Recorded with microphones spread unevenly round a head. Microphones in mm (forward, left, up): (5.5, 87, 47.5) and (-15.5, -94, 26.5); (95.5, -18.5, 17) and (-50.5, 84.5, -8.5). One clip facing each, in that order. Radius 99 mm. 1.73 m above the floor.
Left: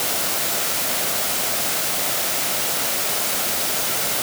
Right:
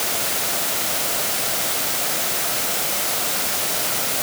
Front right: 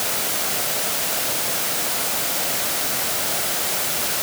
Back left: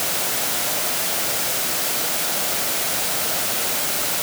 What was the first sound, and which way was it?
Only background noise.